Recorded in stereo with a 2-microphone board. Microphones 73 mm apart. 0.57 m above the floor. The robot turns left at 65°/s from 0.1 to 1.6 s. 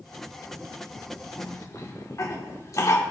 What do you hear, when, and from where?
1.4 s a cough: 55° left (ahead or behind), 1.2 m; by 3.0 s 50° left (ahead or behind), 1.2 m